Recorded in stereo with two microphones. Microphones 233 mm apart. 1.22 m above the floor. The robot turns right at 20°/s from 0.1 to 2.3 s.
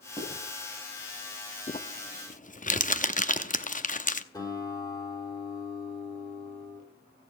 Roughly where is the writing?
Centre.